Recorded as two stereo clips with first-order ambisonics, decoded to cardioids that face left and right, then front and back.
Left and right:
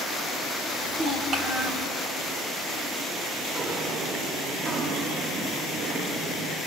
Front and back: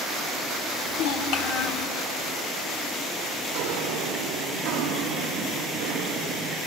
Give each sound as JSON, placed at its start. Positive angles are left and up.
{"t": 0.7, "sound": "a child speaking", "azimuth_deg": -20, "distance_m": 3.5}
{"t": 3.5, "sound": "footsteps", "azimuth_deg": -150, "distance_m": 6.0}